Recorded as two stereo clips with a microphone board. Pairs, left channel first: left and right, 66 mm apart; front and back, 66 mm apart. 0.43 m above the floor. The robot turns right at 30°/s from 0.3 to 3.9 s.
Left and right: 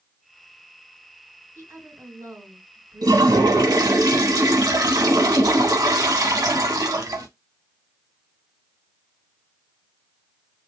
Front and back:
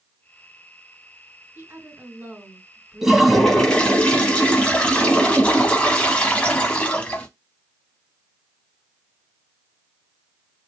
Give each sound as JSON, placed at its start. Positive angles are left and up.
{"t": 1.6, "sound": "a woman speaking", "azimuth_deg": -140, "distance_m": 2.5}
{"t": 3.0, "sound": "a toilet flushing", "azimuth_deg": -100, "distance_m": 0.7}